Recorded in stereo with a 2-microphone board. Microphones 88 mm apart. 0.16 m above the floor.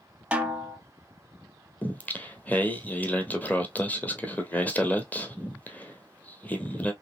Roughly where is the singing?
Centre.